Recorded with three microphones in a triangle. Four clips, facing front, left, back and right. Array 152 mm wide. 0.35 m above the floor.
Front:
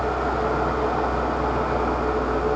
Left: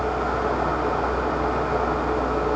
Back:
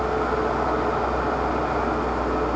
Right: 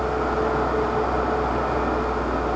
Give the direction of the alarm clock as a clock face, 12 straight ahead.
No alarm clock in this recording.